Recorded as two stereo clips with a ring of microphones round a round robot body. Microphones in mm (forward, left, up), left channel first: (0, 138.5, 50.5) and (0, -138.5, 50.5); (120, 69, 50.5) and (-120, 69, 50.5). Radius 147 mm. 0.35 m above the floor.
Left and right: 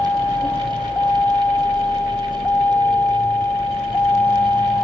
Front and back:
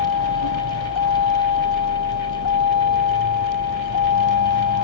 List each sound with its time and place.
0.0 s a vehicle: 5° left; by 4.8 s 10° left